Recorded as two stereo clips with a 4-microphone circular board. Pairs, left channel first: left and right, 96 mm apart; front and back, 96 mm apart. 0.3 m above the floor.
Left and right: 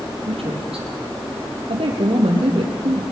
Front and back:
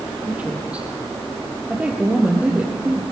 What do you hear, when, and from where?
0.3 s a woman speaking: 100° right, 8 m